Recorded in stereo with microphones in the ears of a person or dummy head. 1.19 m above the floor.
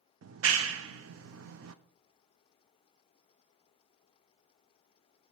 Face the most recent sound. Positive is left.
turn(degrees=-70)  # may be behind; listen again after turning